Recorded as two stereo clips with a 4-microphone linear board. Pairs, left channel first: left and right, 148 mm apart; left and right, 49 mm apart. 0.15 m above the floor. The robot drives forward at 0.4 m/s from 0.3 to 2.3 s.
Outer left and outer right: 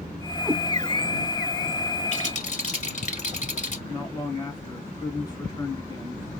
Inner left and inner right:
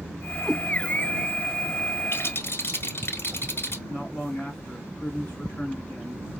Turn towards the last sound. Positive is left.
turn(degrees=25)  # may be behind; listen again after turning